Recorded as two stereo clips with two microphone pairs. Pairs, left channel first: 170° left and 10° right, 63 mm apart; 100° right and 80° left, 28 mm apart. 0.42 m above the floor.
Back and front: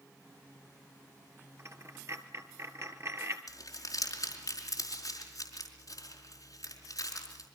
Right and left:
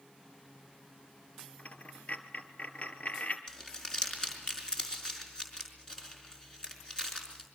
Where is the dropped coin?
60° right, 1.6 m.